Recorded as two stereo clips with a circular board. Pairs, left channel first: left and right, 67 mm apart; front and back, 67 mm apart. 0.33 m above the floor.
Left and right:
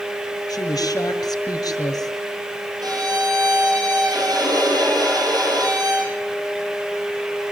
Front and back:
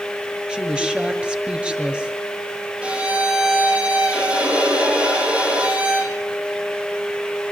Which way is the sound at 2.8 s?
105° right.